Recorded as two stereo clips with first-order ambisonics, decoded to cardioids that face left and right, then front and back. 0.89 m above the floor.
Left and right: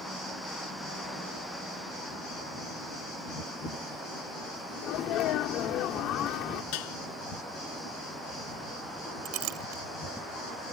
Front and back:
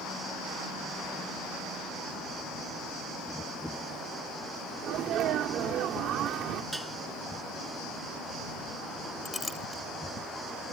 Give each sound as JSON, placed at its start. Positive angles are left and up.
{"t": 4.8, "sound": "a sneeze", "azimuth_deg": 130}
{"t": 6.7, "sound": "dishes clattering", "azimuth_deg": 95}
{"t": 9.2, "sound": "a clink", "azimuth_deg": -80}